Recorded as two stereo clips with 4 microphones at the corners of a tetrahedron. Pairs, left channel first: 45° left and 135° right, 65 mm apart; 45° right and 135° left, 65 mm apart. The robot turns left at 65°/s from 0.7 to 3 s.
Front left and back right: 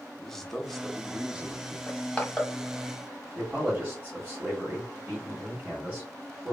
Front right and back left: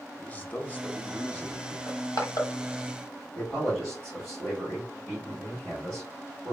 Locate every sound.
0.2 s a man speaking: 40° right, 0.6 m; by 1.8 s 110° right, 0.6 m
1.9 s crushing: 10° right, 1.0 m; by 2.5 s 50° right, 1.0 m
3.4 s a man speaking: 120° right, 1.7 m